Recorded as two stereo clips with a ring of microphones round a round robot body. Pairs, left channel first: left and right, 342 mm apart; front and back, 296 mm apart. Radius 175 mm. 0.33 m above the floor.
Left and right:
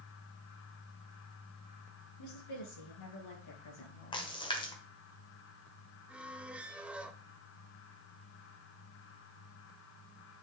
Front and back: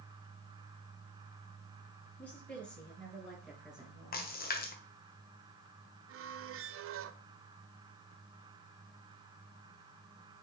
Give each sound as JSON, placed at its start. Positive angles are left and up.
{"t": 2.2, "sound": "a woman speaking", "azimuth_deg": 85, "distance_m": 6.5}
{"t": 4.1, "sound": "a splash", "azimuth_deg": 25, "distance_m": 1.3}
{"t": 6.1, "sound": "a squeak", "azimuth_deg": -175, "distance_m": 0.5}